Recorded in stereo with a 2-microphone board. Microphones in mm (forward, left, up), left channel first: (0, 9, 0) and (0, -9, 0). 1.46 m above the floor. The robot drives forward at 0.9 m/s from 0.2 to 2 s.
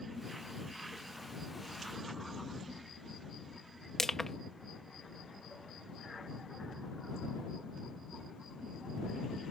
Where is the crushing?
15° left (ahead or behind).